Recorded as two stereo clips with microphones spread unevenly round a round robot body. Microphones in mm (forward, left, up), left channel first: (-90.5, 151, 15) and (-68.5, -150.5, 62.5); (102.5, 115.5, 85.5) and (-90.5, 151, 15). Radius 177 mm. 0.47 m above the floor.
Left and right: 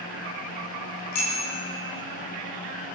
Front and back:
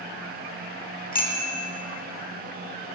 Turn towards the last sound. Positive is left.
turn(degrees=35)